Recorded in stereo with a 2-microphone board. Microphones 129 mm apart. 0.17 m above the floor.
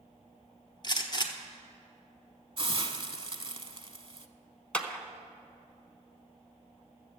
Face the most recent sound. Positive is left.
turn(degrees=10)  # may be behind; listen again after turning